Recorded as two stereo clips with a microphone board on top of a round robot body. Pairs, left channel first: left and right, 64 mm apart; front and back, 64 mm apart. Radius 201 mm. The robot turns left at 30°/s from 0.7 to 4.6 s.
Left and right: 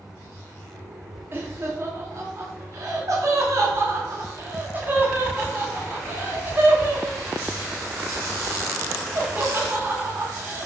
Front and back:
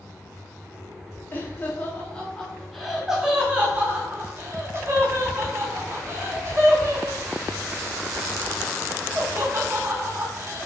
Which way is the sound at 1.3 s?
45° right.